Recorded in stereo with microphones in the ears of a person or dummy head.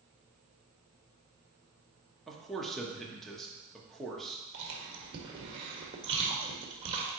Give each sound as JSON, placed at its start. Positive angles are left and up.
{"t": 2.3, "sound": "a man speaking", "side_deg": -5, "distance_m": 1.1}
{"t": 4.5, "sound": "chewing", "side_deg": -35, "distance_m": 1.6}